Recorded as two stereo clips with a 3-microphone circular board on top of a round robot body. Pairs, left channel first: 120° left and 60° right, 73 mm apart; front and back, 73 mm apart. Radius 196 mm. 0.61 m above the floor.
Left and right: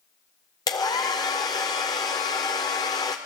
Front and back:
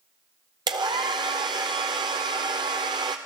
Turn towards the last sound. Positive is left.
turn(degrees=160)